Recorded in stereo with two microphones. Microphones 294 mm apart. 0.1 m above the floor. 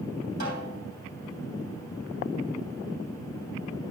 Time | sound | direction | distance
0.4 | a snare drum | 70° right (ahead or behind) | 3 m